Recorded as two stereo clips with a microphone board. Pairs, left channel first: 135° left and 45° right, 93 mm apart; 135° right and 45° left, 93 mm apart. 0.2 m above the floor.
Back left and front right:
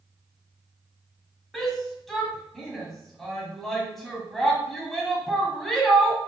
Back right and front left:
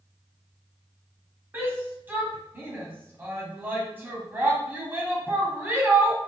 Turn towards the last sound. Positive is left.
turn(degrees=50)